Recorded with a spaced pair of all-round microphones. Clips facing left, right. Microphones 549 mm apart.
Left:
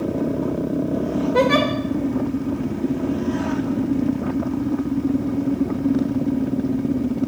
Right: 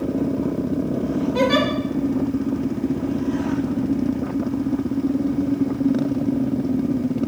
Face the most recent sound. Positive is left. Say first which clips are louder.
# left 2 dB
turn(degrees=70)  # may be behind; listen again after turning